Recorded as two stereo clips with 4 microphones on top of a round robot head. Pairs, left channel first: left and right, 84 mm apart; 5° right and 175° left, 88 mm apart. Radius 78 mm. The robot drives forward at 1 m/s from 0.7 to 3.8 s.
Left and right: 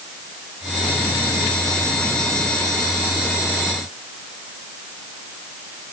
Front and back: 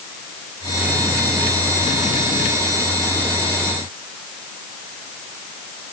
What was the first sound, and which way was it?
Only background noise.